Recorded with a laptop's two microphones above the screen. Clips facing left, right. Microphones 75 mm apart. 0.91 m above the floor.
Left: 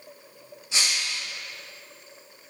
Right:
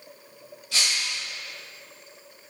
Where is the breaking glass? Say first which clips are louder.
Even; 25° left (ahead or behind), 2.5 m.